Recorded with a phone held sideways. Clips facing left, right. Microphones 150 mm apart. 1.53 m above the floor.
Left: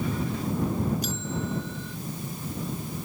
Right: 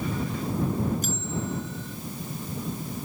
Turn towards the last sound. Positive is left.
turn(degrees=-50)  # may be behind; listen again after turning